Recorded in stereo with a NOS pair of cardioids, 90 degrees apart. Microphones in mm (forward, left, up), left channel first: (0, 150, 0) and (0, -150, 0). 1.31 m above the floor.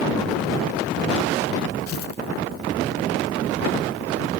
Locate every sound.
1.9 s tearing paper: 50° left, 0.6 m